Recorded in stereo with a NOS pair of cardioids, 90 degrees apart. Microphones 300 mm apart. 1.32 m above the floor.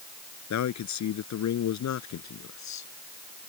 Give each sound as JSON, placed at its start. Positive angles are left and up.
{"t": 0.5, "sound": "a man speaking", "azimuth_deg": 65}